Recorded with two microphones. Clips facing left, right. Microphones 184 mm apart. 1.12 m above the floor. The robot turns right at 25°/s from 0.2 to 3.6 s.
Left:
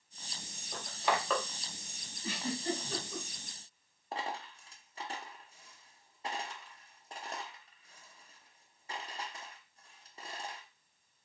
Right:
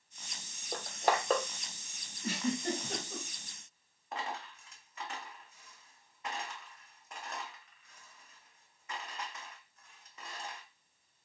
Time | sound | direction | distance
0.7 | crushing | 50° right (ahead or behind) | 0.6 m
2.2 | a giggle | 50° right (ahead or behind) | 1.3 m
4.1 | a dropped coin | 30° left (ahead or behind) | 0.6 m